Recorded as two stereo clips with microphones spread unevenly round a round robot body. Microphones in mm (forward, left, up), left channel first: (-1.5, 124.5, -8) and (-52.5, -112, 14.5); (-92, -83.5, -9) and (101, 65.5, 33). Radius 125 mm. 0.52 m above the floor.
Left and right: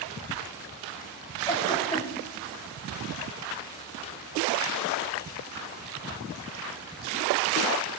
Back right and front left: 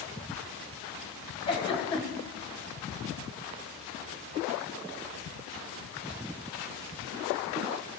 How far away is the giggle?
About 2.5 m.